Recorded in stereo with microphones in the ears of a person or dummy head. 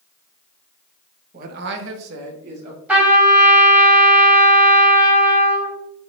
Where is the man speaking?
45° right (ahead or behind), 0.9 m.